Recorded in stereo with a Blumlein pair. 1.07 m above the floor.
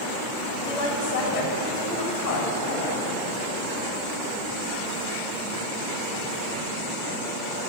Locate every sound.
0.6 s a woman speaking: 20° left, 5 m; by 3.2 s 45° left, 6 m